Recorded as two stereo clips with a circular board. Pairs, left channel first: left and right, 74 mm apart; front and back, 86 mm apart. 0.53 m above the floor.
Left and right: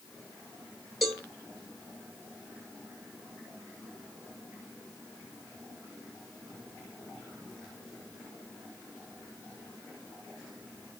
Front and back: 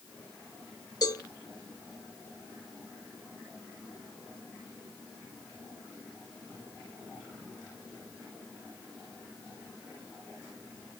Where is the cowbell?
Straight ahead, 1.4 m.